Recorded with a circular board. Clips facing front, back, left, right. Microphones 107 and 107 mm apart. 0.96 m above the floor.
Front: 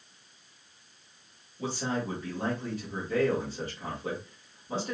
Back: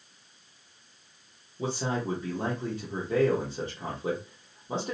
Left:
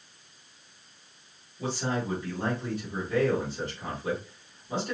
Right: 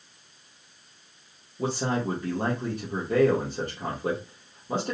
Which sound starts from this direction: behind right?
A man speaking, at 1.6 s.